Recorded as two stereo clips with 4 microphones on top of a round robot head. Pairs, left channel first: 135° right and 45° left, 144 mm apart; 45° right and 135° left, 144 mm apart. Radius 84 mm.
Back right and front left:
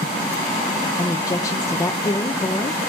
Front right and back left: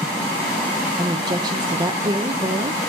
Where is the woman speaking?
175° left, 1.0 m.